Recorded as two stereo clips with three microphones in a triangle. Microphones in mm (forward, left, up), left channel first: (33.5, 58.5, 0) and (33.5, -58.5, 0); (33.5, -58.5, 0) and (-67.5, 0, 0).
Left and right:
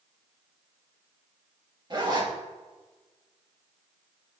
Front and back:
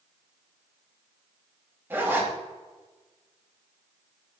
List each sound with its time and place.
1.9 s a zipper: 140° right, 2 m